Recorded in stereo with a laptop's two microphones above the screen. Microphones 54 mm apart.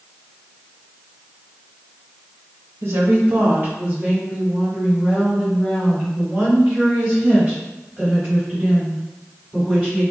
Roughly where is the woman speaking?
Right.